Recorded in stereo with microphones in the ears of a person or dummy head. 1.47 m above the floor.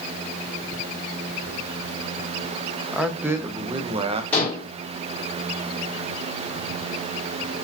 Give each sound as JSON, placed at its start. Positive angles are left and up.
{"t": 2.9, "sound": "a man speaking", "side_deg": 0, "distance_m": 1.4}
{"t": 4.3, "sound": "dishes clattering", "side_deg": 10, "distance_m": 5.0}